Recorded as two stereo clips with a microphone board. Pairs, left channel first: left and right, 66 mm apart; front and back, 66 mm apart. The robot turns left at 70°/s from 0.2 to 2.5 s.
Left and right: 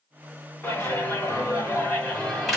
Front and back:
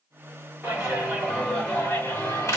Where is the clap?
130° left, 1.6 m; by 2.6 s straight ahead, 1.6 m.